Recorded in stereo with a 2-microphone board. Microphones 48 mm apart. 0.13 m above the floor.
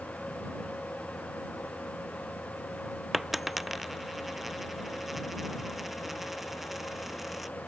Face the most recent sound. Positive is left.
turn(degrees=-5)  # may be behind; listen again after turning